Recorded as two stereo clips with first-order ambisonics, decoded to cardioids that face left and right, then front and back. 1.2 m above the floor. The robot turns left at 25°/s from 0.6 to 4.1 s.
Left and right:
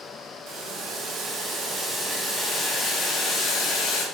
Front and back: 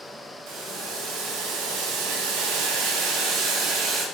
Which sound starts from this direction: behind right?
Boiling, at 0.5 s.